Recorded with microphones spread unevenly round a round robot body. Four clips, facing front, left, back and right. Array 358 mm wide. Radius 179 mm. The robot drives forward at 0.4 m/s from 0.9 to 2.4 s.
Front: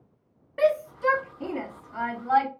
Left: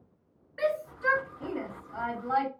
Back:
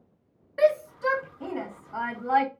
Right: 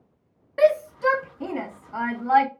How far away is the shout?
About 1.3 m.